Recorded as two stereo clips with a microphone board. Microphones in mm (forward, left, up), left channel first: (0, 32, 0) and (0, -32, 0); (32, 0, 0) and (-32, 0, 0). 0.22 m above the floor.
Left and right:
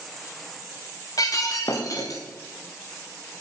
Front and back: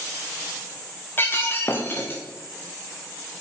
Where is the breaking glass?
60° left, 3 m.